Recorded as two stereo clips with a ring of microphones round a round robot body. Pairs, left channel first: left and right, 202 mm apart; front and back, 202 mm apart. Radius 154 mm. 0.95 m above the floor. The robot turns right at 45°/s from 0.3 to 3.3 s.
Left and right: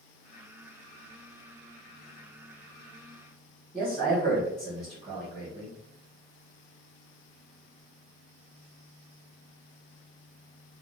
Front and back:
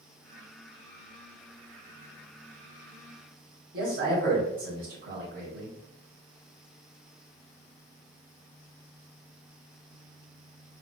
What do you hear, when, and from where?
3.7 s a man speaking: 175° left, 1.2 m